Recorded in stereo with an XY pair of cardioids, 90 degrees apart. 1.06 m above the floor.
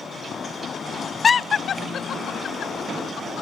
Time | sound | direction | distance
1.2 | laughter | 40° left | ?